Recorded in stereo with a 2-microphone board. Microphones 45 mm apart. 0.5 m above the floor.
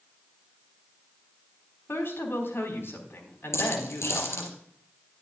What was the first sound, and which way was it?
A woman speaking, 60° left (ahead or behind).